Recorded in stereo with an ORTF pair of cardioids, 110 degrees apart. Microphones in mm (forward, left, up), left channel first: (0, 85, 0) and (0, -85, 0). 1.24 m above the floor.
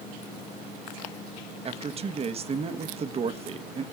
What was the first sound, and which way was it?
A man speaking, 35° right.